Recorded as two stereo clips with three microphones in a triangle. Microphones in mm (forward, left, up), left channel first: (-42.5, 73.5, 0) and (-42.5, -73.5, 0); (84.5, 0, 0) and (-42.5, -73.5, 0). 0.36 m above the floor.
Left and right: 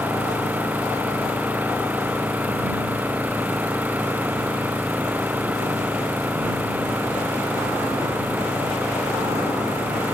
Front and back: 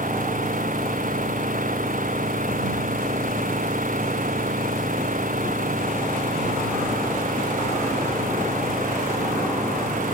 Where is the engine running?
170° right.